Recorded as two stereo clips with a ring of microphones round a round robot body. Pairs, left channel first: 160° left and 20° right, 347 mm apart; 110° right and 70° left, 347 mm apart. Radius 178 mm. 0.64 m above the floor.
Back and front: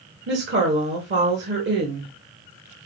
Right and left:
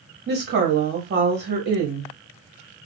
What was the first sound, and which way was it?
A woman speaking, 20° left.